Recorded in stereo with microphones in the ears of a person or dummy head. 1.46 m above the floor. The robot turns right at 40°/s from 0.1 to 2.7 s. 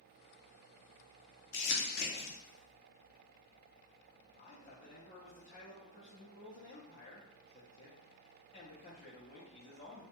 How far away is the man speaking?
About 0.6 m.